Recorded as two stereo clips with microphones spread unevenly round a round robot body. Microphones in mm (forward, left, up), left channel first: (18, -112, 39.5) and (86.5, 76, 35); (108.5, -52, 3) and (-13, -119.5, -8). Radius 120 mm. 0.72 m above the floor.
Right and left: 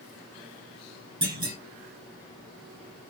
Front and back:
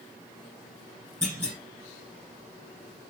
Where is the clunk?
135° left, 1.1 m.